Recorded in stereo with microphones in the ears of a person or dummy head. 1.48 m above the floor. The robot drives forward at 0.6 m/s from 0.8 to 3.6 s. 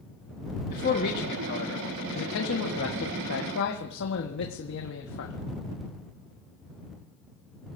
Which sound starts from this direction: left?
A man speaking, at 0.7 s.